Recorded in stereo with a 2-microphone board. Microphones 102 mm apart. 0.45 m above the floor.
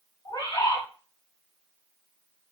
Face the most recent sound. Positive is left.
turn(degrees=40)  # may be behind; listen again after turning